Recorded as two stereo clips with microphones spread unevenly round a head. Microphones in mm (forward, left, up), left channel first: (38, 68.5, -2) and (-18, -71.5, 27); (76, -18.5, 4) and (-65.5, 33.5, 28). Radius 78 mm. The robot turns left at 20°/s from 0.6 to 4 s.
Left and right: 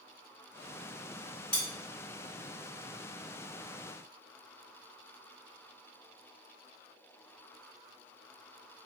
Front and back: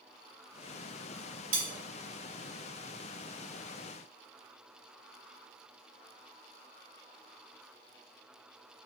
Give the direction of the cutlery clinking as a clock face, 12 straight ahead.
7 o'clock.